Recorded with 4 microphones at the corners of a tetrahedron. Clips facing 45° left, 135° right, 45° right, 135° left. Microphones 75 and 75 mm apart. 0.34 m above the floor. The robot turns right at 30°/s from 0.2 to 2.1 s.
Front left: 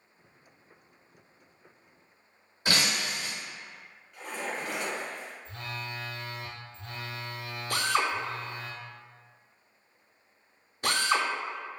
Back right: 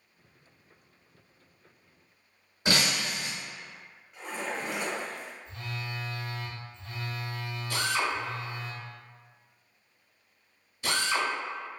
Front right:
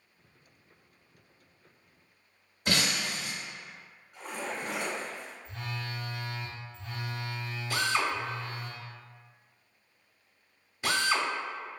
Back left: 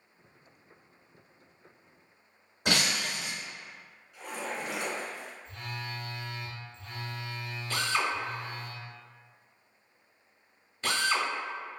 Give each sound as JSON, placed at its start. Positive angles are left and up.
{"t": 2.6, "sound": "breaking glass", "azimuth_deg": 155, "distance_m": 1.6}
{"t": 4.1, "sound": "a splash", "azimuth_deg": -75, "distance_m": 1.3}
{"t": 5.5, "sound": "a phone buzzing", "azimuth_deg": 40, "distance_m": 0.6}
{"t": 7.7, "sound": "a drill", "azimuth_deg": 35, "distance_m": 0.7}